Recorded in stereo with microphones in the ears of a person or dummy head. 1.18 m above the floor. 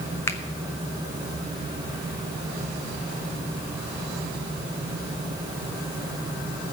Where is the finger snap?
15° left (ahead or behind), 0.8 m.